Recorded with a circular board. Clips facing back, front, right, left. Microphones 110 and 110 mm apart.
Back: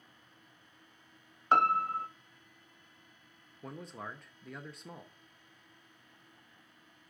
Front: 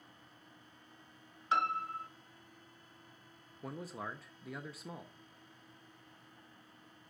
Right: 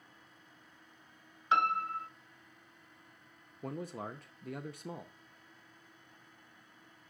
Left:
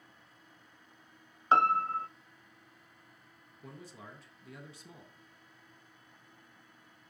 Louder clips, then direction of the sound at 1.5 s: Back 7 dB, left 4 dB; 140° left.